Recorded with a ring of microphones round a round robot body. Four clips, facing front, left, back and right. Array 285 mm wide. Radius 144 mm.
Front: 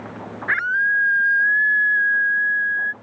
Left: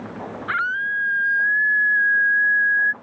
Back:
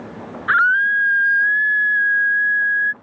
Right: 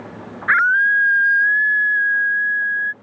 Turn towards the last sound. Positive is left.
turn(degrees=-160)